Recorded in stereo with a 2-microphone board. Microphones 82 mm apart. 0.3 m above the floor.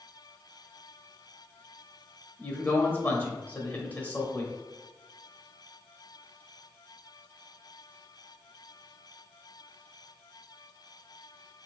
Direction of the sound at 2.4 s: 20° left (ahead or behind).